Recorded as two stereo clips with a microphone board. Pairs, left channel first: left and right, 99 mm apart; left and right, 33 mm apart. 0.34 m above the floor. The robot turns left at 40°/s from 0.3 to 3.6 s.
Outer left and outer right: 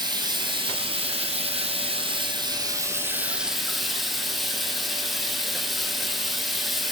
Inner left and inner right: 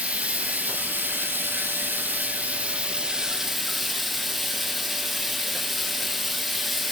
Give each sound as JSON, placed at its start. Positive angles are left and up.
{"t": 0.0, "sound": "running water", "azimuth_deg": -45, "distance_m": 1.1}